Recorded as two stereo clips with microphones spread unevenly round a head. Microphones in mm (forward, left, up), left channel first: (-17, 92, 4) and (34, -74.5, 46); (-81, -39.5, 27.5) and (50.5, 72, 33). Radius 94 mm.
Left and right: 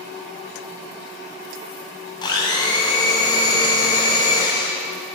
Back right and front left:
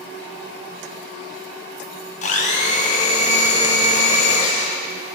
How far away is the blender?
About 0.7 m.